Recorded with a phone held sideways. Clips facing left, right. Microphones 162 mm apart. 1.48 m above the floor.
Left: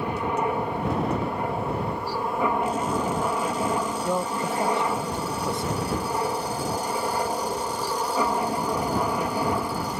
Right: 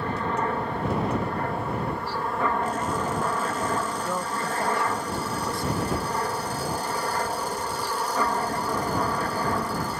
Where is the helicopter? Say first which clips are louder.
Left 1 dB; 15° left (ahead or behind).